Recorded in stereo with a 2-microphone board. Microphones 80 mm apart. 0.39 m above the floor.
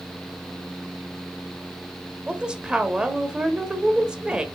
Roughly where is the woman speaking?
Centre.